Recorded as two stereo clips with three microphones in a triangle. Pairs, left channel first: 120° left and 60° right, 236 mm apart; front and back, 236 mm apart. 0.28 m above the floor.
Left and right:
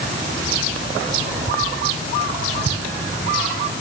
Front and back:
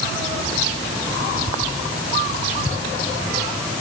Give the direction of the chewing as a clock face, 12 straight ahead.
No chewing in this recording.